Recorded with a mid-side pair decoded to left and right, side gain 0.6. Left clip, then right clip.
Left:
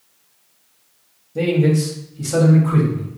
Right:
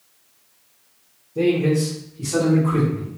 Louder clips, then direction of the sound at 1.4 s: Even; 60° left.